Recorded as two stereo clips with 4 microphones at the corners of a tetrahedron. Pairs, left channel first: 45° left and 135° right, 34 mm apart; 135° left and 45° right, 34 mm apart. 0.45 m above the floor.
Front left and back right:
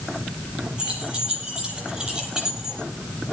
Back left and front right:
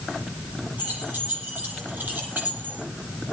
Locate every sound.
0.8 s keys jangling: 70° right, 9 m; by 2.8 s 65° right, 7.5 m